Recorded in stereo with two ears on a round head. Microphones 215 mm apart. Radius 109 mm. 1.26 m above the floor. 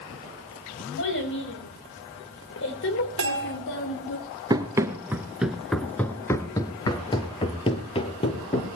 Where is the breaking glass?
No breaking glass in this recording.